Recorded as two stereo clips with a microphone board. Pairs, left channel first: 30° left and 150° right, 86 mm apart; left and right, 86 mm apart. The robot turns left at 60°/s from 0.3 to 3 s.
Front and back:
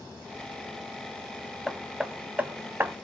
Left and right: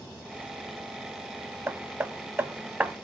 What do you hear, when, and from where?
1.7 s hammering: 60° right, 1.2 m; by 2.9 s 140° right, 1.2 m